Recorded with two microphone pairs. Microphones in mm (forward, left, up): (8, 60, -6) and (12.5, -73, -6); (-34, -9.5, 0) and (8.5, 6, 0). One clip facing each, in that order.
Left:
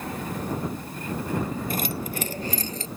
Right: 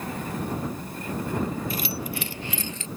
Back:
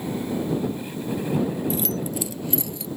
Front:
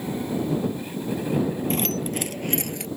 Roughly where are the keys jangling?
Ahead left.